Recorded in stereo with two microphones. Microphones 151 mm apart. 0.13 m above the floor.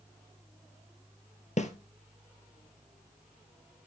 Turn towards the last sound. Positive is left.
turn(degrees=50)  # may be behind; listen again after turning